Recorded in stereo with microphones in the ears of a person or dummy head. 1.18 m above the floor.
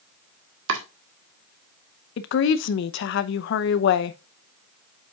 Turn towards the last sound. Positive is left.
turn(degrees=65)  # may be behind; listen again after turning